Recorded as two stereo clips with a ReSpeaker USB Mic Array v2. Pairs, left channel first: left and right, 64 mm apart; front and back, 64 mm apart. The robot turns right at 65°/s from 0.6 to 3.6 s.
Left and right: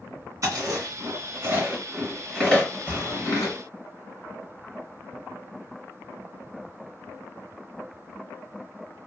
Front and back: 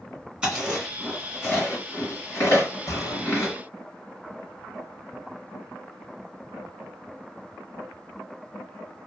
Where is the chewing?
110° right, 2 m; by 3.5 s 80° left, 2 m.